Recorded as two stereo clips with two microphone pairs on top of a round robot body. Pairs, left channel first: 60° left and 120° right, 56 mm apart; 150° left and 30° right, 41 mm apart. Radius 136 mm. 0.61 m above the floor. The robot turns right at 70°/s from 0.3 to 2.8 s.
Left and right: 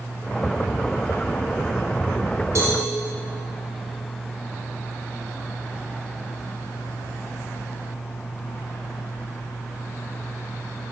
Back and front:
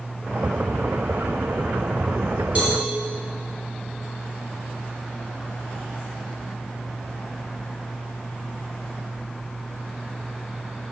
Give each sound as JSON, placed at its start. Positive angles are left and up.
{"t": 2.5, "sound": "a cowbell", "azimuth_deg": -85, "distance_m": 2.5}